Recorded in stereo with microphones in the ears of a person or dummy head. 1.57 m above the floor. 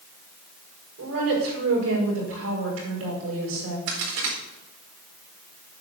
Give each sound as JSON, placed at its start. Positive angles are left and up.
{"t": 1.0, "sound": "a woman speaking", "side_deg": -85, "distance_m": 6.0}
{"t": 3.9, "sound": "a crack", "side_deg": -75, "distance_m": 4.5}